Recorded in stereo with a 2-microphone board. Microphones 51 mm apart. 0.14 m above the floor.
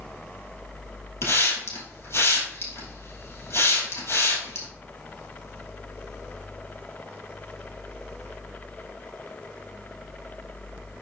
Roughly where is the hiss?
Left.